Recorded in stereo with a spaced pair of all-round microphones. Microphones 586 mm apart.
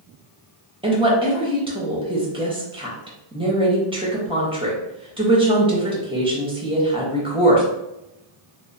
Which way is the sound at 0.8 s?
10° right (ahead or behind).